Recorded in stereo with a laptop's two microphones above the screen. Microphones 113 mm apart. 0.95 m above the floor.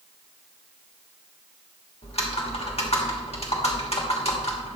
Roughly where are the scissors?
No scissors in this recording.